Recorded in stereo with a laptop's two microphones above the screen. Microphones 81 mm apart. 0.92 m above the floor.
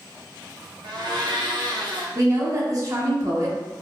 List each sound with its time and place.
0.8 s a blender: 65° right (ahead or behind), 0.7 m
2.1 s a woman speaking: 45° right (ahead or behind), 1.0 m